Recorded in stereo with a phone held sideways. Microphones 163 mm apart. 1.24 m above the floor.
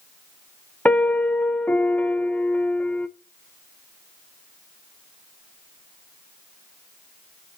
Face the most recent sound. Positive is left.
turn(degrees=10)  # may be behind; listen again after turning